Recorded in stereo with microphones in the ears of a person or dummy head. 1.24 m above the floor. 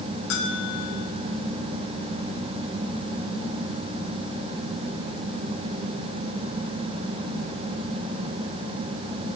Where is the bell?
65° left (ahead or behind), 1.3 m.